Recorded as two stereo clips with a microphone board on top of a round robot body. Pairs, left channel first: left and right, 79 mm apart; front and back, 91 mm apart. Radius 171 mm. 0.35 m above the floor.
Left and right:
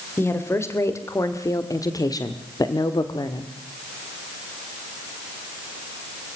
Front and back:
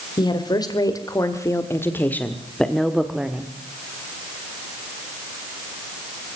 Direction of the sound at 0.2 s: 35° left.